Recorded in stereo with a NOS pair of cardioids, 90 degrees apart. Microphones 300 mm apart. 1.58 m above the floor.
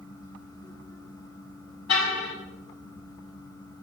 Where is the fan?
15° left, 3 m.